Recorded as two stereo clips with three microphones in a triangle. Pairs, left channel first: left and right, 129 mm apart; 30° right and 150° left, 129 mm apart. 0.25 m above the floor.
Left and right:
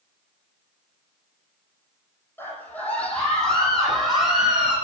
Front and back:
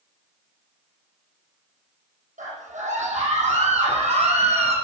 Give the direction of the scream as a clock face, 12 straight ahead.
7 o'clock.